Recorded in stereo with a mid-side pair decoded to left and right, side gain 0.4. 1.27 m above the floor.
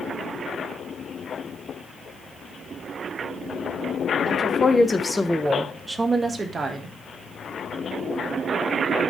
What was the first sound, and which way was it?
A woman speaking, 40° left.